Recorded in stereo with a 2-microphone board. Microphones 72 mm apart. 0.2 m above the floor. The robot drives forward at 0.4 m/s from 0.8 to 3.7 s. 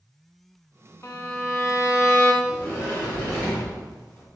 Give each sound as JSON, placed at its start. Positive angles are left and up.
{"t": 1.0, "sound": "a violin", "side_deg": 40, "distance_m": 0.6}
{"t": 2.4, "sound": "a sliding door", "side_deg": 25, "distance_m": 1.9}